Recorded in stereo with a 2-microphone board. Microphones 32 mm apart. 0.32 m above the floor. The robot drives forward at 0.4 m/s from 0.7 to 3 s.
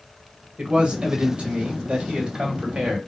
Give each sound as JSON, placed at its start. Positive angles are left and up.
{"t": 0.6, "sound": "a man speaking", "side_deg": -35, "distance_m": 1.5}